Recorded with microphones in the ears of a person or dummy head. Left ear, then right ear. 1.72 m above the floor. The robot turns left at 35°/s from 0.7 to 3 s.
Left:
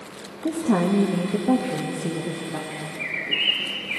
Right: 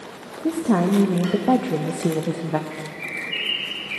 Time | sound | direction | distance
0.4 | a woman speaking | 5° right | 0.6 m
2.7 | a bird | centre (ahead or behind) | 0.8 m